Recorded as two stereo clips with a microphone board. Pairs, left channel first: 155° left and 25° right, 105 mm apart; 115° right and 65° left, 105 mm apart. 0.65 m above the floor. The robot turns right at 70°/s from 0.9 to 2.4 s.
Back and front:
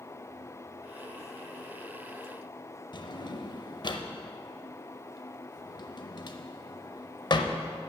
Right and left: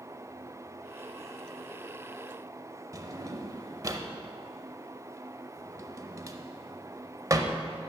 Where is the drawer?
120° left, 0.6 m.